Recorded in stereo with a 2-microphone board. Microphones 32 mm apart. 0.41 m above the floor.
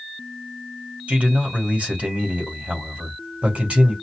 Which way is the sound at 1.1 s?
50° right (ahead or behind).